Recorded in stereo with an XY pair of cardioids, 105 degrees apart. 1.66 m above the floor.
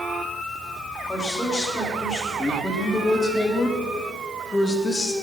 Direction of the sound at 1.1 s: 25° left.